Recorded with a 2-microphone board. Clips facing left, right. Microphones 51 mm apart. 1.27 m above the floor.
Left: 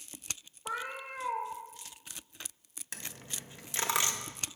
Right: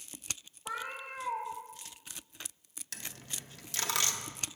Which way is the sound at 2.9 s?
20° left (ahead or behind).